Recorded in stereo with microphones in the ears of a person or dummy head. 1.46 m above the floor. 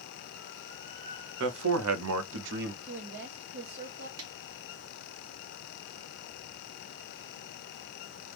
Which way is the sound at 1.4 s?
65° right (ahead or behind).